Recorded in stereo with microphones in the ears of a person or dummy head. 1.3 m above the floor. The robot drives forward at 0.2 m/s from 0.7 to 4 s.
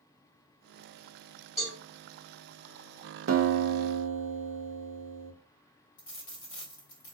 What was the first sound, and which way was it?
A cowbell, 10° left (ahead or behind).